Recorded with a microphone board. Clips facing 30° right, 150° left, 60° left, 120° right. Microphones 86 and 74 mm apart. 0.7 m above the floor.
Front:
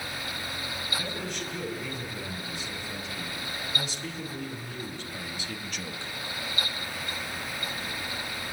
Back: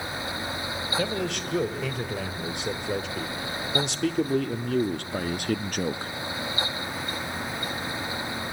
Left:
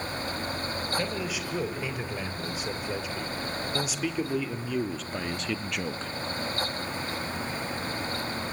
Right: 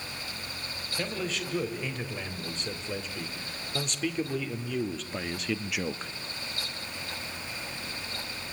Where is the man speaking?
140° left, 3 m; by 6.1 s 165° left, 0.6 m.